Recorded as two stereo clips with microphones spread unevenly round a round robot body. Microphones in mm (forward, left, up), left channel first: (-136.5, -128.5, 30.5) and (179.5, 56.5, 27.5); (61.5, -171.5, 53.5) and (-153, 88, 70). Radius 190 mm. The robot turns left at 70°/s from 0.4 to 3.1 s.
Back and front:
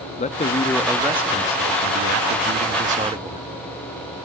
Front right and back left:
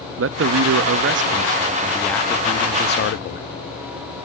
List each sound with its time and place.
0.2 s a man speaking: 150° left, 0.6 m; by 3.4 s 40° right, 0.6 m